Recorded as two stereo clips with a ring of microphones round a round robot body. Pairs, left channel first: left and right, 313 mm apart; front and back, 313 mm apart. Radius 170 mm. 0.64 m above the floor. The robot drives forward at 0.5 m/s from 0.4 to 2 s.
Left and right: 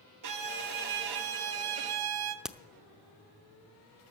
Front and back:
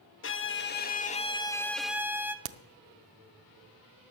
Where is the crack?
Straight behind, 0.7 m.